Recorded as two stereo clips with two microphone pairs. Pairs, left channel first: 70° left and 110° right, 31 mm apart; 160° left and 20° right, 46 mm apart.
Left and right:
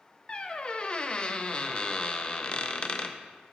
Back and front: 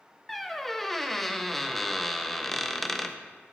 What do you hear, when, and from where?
0.3 s a squeak: 80° left, 0.5 m